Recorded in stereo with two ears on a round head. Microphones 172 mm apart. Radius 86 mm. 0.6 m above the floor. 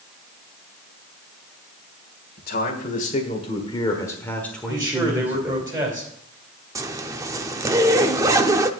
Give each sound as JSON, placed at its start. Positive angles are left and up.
{"t": 2.4, "sound": "a man speaking", "side_deg": 50, "distance_m": 1.8}
{"t": 4.7, "sound": "a man speaking", "side_deg": -20, "distance_m": 3.5}
{"t": 6.8, "sound": "a zipper", "side_deg": -15, "distance_m": 0.6}